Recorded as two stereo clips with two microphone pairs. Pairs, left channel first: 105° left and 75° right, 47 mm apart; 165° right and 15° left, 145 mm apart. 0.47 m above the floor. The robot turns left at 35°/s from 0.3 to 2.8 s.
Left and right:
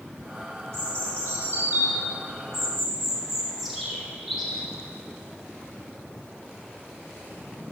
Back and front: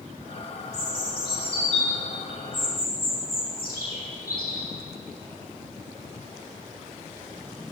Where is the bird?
85° right, 4 m; by 4.6 s 160° right, 4 m.